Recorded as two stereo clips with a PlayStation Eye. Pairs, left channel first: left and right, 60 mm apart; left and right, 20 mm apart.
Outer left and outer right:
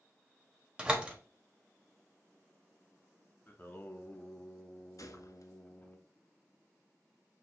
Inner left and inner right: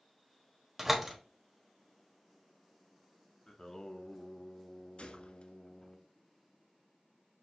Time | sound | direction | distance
0.8 | a door slam | 15° right (ahead or behind) | 0.9 m
3.5 | singing | 30° left (ahead or behind) | 0.6 m
5.0 | a gunshot | 70° left (ahead or behind) | 0.5 m